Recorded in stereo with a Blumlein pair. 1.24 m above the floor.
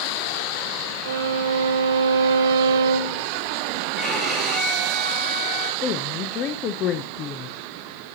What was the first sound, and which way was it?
A violin, 60° right.